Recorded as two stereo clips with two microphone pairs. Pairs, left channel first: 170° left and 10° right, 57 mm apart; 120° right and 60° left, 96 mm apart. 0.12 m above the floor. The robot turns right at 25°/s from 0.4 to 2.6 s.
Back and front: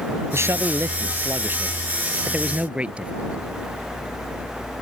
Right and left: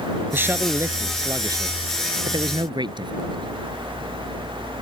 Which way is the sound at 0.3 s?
5° right.